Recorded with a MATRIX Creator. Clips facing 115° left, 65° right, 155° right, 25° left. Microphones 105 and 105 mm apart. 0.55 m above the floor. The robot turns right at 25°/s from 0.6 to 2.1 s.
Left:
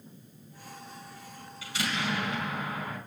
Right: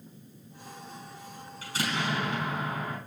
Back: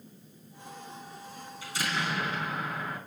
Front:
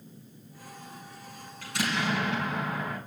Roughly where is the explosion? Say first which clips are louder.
Right 1 dB, front 3 dB; ahead.